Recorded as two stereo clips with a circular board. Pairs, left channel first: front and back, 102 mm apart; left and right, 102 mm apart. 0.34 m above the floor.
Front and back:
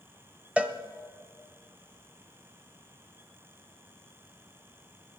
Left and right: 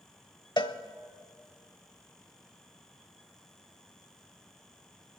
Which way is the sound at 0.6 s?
105° left.